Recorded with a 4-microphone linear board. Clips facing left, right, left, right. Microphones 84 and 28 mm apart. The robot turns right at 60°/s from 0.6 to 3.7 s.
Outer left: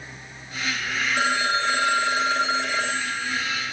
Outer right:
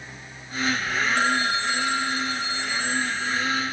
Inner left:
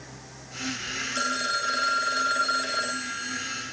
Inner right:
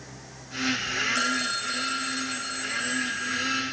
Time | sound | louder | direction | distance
1.1 | a phone ringing | outer left 3 dB, even | 10° left | 2.5 m